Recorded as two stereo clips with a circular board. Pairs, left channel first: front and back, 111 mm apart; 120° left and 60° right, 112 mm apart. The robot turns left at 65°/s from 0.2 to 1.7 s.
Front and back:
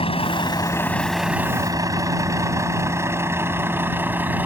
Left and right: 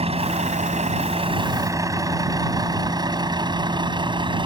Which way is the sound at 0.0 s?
35° right.